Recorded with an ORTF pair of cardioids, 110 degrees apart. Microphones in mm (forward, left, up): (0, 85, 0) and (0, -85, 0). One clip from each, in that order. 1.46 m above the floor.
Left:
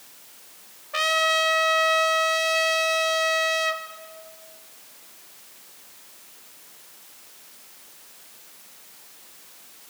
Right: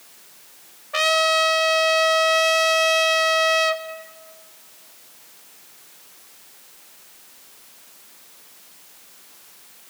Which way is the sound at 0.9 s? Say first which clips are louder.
Right 3 dB; 20° right.